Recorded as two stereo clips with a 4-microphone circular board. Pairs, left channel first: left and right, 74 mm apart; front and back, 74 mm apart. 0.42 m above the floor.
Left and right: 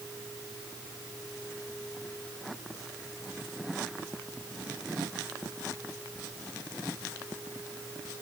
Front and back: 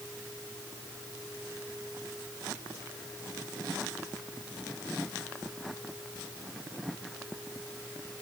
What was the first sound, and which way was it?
Only background noise.